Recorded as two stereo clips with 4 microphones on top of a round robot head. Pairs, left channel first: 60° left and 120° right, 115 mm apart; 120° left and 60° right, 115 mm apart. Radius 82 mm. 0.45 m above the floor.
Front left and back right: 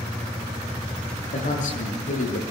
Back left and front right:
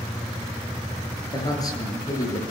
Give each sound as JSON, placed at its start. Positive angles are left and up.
{"t": 1.3, "sound": "a man speaking", "azimuth_deg": 65, "distance_m": 9.0}